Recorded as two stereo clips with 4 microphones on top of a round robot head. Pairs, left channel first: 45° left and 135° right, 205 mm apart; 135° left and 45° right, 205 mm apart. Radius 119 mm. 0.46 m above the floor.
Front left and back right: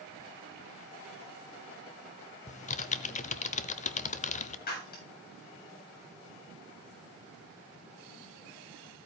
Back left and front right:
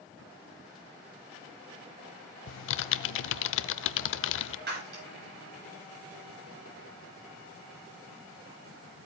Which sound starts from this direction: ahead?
Breaking glass, at 4.7 s.